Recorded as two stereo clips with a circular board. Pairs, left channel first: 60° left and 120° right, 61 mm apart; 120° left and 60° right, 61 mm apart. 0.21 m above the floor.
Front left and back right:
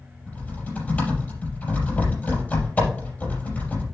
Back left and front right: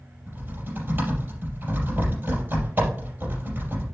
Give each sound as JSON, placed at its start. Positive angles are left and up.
{"t": 0.3, "sound": "typing on a keyboard", "azimuth_deg": -5, "distance_m": 5.0}